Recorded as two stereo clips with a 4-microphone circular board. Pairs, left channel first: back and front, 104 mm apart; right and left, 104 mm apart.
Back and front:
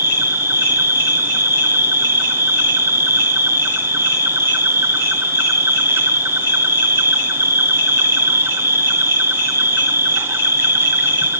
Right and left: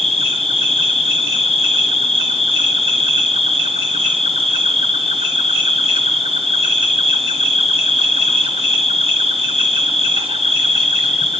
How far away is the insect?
About 3 m.